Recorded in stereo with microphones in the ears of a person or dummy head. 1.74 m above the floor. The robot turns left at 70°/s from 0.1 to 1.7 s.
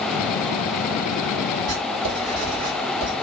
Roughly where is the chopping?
I don't hear chopping.